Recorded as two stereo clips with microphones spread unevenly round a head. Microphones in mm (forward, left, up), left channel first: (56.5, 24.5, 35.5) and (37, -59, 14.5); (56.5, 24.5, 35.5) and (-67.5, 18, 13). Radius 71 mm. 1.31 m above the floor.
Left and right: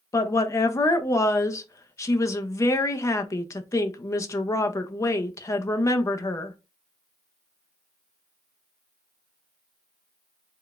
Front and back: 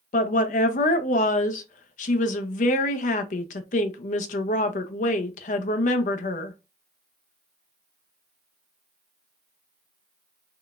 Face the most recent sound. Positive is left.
turn(degrees=25)